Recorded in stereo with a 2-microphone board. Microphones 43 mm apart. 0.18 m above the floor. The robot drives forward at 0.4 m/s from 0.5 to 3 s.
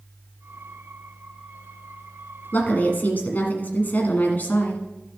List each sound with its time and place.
2.5 s a woman speaking: 45° left (ahead or behind), 1.3 m